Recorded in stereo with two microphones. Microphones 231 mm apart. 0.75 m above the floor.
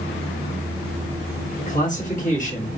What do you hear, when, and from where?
1.7 s a man speaking: 35° left (ahead or behind), 1.2 m